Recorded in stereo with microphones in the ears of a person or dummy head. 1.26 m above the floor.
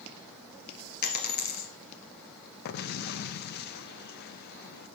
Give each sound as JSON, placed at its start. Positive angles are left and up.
{"t": 1.0, "sound": "a dropped coin", "side_deg": 55, "distance_m": 3.0}
{"t": 2.6, "sound": "an explosion", "side_deg": 60, "distance_m": 0.7}